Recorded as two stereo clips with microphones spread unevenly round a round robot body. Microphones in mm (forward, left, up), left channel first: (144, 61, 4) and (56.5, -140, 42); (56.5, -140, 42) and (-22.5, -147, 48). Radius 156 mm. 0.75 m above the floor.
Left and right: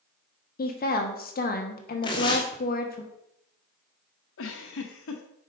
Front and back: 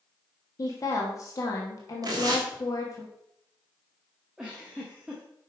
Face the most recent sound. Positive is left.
turn(degrees=100)